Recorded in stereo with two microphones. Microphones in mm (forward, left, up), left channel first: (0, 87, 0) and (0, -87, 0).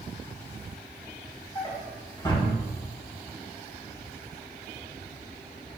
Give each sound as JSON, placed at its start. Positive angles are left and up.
{"t": 1.6, "sound": "a drawer", "side_deg": 25, "distance_m": 2.5}